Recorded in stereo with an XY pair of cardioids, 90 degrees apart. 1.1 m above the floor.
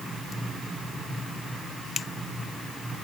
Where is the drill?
I don't hear a drill.